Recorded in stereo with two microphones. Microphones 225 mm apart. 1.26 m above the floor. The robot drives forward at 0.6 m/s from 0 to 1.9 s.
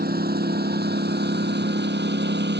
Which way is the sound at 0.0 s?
45° right (ahead or behind).